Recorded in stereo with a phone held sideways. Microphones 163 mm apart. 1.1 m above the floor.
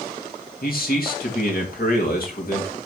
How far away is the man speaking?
About 2 m.